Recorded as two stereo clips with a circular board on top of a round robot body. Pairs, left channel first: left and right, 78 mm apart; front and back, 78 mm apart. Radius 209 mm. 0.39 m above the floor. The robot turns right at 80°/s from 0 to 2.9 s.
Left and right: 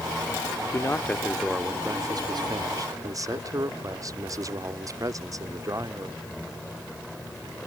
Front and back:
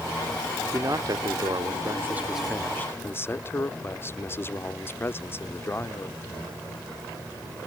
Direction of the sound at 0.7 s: 130° left.